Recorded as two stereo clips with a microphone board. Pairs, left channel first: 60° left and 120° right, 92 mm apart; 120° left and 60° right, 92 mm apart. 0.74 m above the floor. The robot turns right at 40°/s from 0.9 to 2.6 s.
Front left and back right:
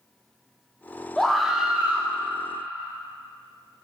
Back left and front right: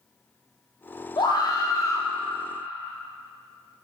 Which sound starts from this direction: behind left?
A scream, at 1.2 s.